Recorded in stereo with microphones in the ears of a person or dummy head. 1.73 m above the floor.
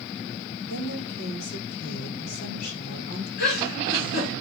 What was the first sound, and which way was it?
A woman speaking, 60° left (ahead or behind).